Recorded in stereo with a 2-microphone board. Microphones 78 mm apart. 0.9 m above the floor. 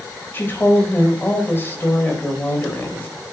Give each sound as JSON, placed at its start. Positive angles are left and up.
{"t": 0.3, "sound": "a woman speaking", "side_deg": 30, "distance_m": 3.5}